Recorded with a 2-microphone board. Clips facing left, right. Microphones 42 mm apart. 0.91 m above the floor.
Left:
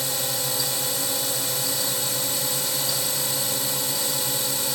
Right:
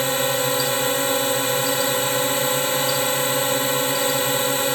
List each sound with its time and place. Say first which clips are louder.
0.0 s a drone: right 9 dB; 45° right (ahead or behind)